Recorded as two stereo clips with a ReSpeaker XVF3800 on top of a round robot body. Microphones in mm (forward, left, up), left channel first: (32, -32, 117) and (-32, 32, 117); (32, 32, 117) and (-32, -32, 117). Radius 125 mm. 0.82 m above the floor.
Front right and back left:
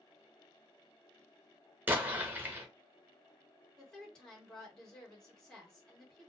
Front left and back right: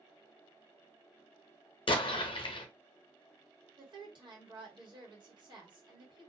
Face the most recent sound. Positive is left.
turn(degrees=-125)